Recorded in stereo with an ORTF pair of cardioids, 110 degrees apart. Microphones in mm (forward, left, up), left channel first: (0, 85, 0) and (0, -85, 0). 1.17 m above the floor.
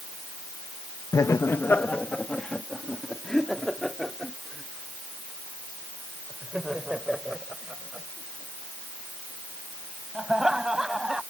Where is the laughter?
20° left; by 11.2 s 5° right.